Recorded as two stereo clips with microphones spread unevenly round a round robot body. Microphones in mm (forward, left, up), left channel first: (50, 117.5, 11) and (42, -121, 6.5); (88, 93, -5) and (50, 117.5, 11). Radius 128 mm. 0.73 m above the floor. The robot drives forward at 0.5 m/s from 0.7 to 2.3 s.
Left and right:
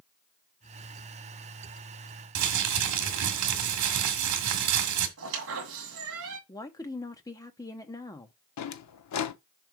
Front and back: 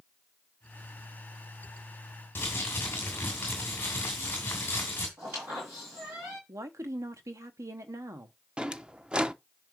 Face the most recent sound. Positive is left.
turn(degrees=75)